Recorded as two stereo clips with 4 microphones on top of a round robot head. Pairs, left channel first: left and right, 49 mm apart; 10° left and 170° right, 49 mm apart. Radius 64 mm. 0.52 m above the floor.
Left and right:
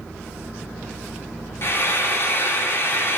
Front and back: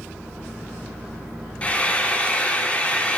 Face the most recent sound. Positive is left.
turn(degrees=70)